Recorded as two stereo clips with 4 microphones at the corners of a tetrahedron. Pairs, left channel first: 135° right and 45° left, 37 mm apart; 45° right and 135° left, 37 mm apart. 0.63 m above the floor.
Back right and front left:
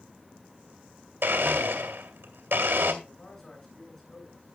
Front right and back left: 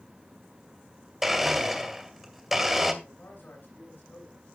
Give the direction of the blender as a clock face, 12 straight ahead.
10 o'clock.